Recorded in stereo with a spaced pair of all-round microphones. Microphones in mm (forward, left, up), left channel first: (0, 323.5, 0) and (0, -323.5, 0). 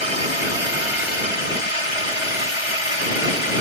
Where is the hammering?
No hammering in this recording.